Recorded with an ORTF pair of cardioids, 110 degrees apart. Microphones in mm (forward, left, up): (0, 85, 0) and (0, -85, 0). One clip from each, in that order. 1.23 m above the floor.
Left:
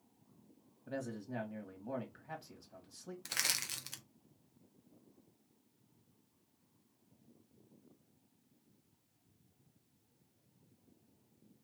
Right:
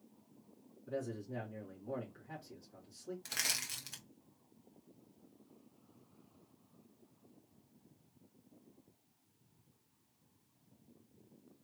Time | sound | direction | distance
0.9 | a man speaking | 55° left | 1.9 m
3.2 | crushing | 20° left | 0.9 m